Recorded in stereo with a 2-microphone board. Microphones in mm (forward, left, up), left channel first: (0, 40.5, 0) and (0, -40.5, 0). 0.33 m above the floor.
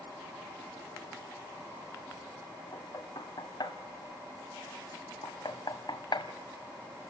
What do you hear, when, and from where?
2.7 s knocking: 60° left (ahead or behind), 1.9 m